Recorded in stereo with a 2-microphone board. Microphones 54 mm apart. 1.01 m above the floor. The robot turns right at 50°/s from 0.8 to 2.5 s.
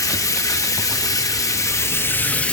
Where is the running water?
75° left, 0.8 m; by 2.5 s 160° left, 0.8 m.